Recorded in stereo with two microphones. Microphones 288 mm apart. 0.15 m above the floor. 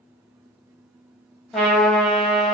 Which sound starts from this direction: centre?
A trumpet, at 1.5 s.